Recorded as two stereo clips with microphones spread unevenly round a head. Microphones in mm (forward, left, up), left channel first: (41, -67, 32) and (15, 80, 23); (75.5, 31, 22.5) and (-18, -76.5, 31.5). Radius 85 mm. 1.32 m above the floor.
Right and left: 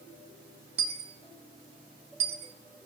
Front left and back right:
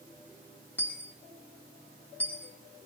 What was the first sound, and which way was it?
A dropped coin, 130° left.